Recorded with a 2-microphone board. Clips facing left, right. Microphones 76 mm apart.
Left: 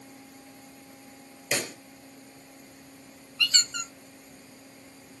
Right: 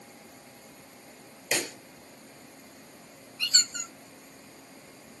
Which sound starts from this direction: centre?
A pop, at 1.5 s.